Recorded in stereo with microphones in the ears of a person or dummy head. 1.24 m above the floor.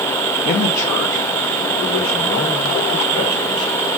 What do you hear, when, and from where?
0.5 s a man speaking: 50° left (ahead or behind), 1.1 m; by 3.9 s 75° left (ahead or behind), 5.5 m